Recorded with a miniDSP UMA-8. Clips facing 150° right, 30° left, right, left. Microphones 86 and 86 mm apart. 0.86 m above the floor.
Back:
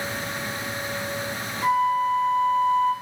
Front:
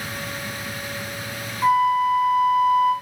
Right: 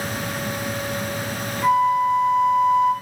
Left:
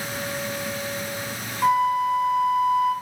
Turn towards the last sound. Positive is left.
turn(degrees=80)